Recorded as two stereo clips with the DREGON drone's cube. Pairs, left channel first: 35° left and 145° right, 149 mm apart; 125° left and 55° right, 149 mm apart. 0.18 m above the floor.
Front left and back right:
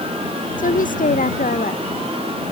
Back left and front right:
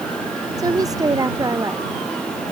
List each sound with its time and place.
0.6 s a woman speaking: 10° left